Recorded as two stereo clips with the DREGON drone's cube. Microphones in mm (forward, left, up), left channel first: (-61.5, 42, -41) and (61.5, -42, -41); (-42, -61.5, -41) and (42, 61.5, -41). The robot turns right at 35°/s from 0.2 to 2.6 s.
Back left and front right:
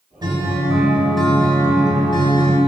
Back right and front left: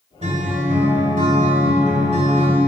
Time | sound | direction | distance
0.2 | a guitar | 25° left | 2 m